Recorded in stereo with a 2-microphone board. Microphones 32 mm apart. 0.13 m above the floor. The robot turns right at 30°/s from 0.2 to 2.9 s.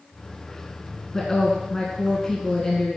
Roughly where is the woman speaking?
Centre.